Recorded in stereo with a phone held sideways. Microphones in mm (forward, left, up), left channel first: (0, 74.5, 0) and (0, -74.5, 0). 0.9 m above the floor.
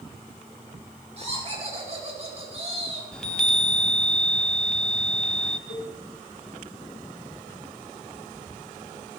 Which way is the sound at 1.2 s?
45° right (ahead or behind).